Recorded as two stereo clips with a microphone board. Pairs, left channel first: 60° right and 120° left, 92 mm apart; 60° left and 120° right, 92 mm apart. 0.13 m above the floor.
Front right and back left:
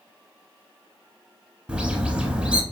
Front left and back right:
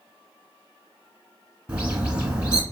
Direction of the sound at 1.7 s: Straight behind.